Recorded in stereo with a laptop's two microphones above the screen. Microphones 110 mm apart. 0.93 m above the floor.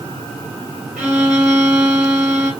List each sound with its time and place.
1.0 s a violin: 10° right (ahead or behind), 1.3 m